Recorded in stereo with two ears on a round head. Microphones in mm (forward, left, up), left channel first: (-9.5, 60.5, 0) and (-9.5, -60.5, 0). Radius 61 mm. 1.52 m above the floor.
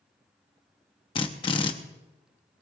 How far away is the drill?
About 1.0 m.